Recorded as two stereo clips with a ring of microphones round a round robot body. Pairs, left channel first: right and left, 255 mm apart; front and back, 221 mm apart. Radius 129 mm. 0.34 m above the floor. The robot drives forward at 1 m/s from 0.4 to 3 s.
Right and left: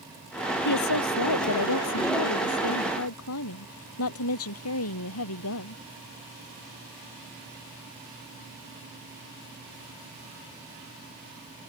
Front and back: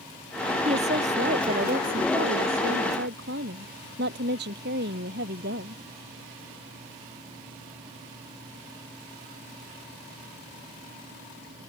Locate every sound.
0.7 s a woman speaking: 110° right; by 5.8 s 125° right